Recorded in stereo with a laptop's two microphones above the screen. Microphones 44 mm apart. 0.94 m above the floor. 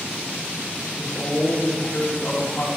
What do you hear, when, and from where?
1.0 s a woman speaking: 55° left (ahead or behind), 1.9 m